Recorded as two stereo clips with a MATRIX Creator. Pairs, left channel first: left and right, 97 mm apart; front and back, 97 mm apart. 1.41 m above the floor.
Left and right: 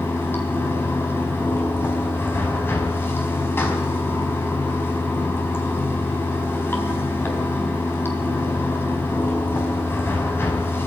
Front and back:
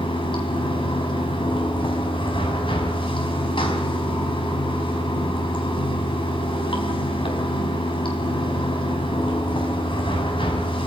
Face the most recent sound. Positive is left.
turn(degrees=25)